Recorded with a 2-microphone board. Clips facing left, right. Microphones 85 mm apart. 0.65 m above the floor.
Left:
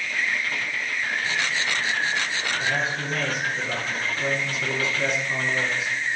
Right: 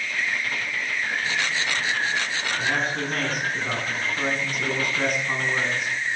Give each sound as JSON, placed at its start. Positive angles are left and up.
{"t": 2.6, "sound": "a man speaking", "side_deg": -50, "distance_m": 6.5}